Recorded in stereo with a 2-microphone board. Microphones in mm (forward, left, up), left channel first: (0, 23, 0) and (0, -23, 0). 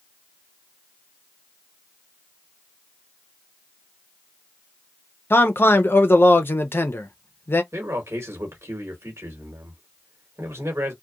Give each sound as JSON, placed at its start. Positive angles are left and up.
{"t": 5.3, "sound": "a man speaking", "side_deg": 55, "distance_m": 0.5}
{"t": 7.7, "sound": "a man speaking", "side_deg": -75, "distance_m": 1.1}